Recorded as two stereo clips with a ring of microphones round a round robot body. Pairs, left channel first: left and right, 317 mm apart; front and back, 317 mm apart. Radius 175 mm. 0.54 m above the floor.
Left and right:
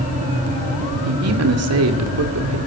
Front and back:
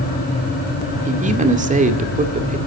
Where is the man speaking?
120° right, 2.0 m.